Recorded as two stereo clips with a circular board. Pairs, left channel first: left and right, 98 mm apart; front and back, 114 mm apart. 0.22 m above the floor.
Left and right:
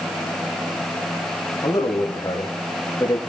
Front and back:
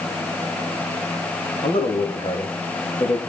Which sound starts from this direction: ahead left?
A man speaking, at 1.6 s.